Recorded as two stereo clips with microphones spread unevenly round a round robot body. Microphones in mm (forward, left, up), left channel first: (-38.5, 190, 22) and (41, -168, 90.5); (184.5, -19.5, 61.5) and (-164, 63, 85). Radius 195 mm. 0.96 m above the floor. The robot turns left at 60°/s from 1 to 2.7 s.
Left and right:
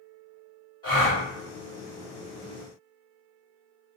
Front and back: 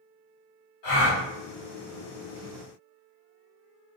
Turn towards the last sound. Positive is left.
turn(degrees=-85)